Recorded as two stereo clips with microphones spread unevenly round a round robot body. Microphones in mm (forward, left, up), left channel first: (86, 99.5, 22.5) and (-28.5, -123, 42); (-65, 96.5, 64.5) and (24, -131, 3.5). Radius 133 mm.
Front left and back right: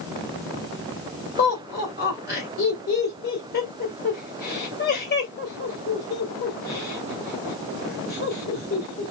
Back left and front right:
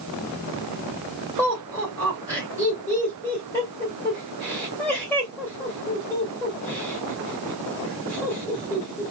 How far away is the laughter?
About 2.5 m.